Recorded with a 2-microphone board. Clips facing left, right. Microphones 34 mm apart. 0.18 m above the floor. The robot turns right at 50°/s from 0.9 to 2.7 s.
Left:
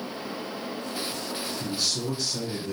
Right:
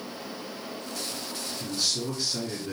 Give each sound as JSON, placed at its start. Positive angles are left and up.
{"t": 1.6, "sound": "a man speaking", "azimuth_deg": 160, "distance_m": 1.9}